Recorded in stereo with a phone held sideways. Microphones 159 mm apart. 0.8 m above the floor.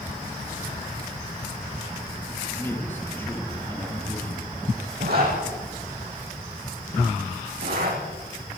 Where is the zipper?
75° right (ahead or behind), 7 m.